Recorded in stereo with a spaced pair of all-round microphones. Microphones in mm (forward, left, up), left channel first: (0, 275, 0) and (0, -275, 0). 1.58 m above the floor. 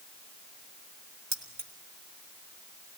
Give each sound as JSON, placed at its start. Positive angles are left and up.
{"t": 1.3, "sound": "keys jangling", "side_deg": -75, "distance_m": 2.5}